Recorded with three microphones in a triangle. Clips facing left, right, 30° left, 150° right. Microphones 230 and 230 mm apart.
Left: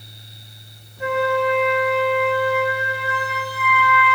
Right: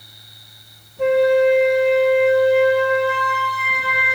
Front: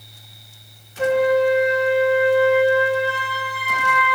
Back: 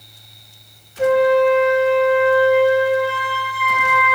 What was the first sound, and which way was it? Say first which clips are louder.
A flute: right 7 dB, back 3 dB; 70° right.